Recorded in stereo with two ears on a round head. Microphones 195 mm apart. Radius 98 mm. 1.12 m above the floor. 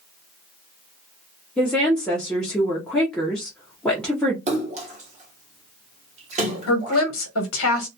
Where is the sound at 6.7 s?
70° left (ahead or behind), 1.0 m.